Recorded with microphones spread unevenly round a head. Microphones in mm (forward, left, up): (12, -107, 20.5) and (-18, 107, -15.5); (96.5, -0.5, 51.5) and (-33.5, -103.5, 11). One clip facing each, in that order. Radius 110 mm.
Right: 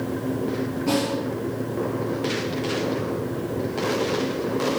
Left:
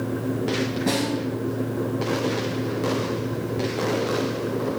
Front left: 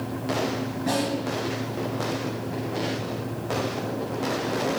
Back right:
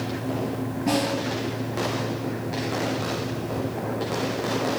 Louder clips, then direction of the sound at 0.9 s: Right 3 dB, back right 2 dB; 100° left.